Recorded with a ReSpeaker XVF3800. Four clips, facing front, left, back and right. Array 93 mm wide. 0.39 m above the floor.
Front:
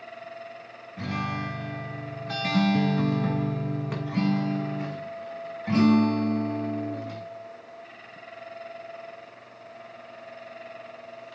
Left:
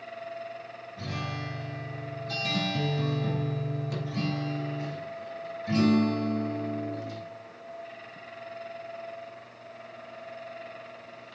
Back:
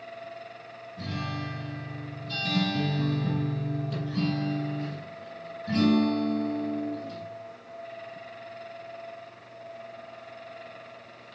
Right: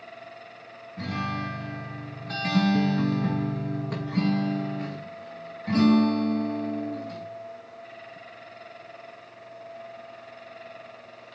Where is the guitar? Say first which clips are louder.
Right 6 dB, front 4 dB; 30° right, 1.3 m.